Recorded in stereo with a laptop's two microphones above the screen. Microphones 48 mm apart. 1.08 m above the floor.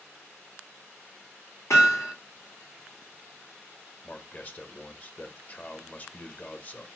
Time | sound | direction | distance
1.7 | hammering | 80° left | 2.5 m
4.0 | a man speaking | 30° left (ahead or behind) | 0.8 m